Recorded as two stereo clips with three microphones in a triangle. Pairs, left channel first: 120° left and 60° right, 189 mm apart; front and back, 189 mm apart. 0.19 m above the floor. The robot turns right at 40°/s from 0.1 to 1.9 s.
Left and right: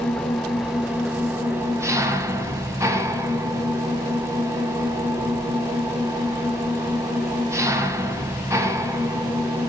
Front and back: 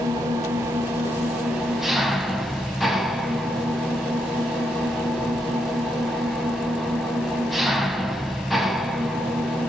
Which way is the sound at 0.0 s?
165° right.